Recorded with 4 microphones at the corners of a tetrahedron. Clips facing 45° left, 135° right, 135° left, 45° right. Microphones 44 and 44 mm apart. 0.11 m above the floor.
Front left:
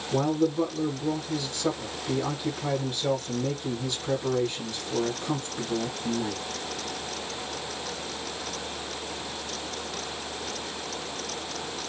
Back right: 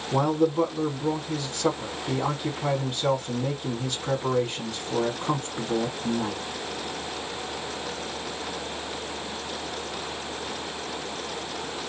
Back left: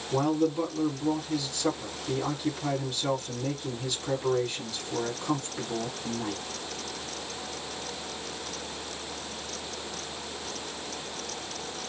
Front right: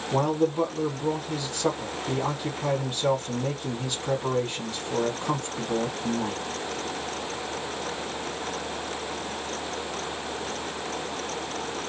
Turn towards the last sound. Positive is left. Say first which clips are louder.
# back right 2 dB, front right 2 dB
turn(degrees=-105)